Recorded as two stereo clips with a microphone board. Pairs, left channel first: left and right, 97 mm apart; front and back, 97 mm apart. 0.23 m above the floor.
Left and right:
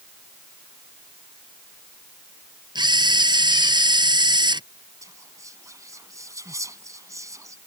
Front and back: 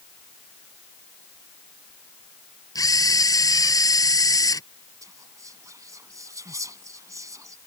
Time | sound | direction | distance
2.8 | a camera shutter | 50° right | ?
5.0 | whispering | 135° right | ?